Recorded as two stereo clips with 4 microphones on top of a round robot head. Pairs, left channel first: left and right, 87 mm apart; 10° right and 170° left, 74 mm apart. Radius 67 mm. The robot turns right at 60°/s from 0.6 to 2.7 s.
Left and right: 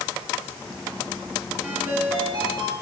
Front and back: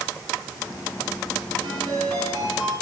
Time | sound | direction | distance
1.6 | a ringtone | 170° right | 6 m